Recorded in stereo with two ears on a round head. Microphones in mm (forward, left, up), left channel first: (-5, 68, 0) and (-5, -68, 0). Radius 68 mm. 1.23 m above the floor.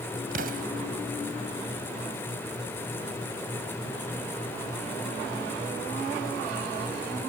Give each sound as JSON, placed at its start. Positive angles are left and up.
{"t": 0.3, "sound": "an explosion", "side_deg": -55}